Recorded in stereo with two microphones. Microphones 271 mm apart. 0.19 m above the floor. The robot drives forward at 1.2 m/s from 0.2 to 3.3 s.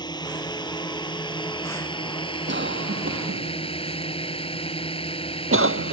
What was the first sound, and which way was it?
A drone, 15° left (ahead or behind).